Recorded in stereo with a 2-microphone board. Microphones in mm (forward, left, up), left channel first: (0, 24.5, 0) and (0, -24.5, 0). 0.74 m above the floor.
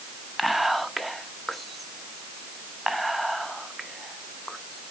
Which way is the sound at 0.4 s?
Centre (ahead or behind).